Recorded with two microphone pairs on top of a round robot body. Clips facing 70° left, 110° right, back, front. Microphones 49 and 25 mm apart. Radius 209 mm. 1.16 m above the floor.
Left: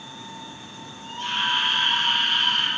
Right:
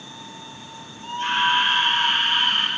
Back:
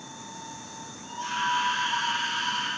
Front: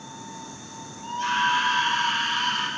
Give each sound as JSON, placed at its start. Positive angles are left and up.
{"t": 1.0, "sound": "a scream", "azimuth_deg": -60, "distance_m": 4.5}